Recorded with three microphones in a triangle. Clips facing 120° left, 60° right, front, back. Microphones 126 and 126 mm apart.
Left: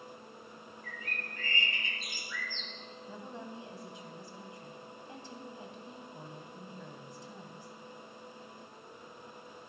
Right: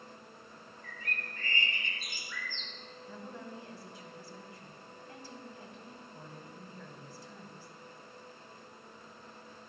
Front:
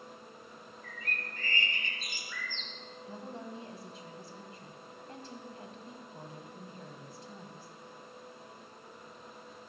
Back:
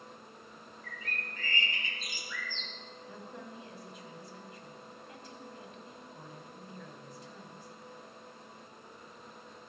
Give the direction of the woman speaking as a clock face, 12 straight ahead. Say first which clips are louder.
Even, front 4 dB; 10 o'clock.